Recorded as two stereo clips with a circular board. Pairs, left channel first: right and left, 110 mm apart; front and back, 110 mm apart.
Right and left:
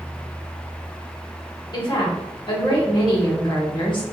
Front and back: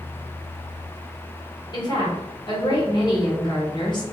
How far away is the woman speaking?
About 1.4 m.